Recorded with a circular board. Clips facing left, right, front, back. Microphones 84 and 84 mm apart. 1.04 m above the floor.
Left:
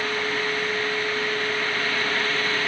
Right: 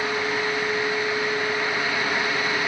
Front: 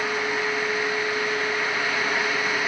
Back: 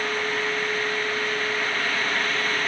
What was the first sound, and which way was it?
Only background noise.